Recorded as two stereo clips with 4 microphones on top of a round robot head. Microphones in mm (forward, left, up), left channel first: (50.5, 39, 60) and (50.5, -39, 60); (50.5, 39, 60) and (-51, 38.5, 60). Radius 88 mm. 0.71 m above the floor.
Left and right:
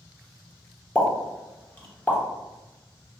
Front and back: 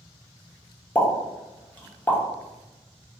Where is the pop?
50° left, 0.9 m.